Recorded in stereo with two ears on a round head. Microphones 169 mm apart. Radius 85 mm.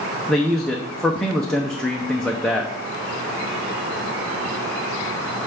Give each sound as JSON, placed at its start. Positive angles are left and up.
{"t": 0.3, "sound": "a man speaking", "side_deg": 5, "distance_m": 0.8}